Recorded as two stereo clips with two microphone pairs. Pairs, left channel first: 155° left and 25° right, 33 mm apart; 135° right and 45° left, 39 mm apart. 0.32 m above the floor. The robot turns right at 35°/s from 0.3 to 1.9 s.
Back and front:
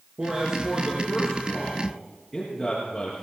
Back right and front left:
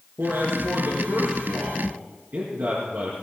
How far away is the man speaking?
About 4.5 m.